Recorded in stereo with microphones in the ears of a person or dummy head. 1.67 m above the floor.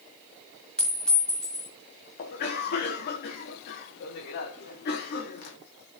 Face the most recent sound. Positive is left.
turn(degrees=55)  # may be behind; listen again after turning